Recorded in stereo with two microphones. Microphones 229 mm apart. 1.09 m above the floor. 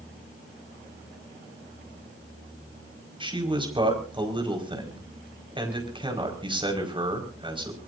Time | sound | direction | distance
3.2 | a man speaking | 20° right (ahead or behind) | 5 m